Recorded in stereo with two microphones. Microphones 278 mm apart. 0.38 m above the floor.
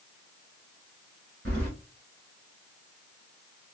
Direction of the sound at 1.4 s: 45° right (ahead or behind).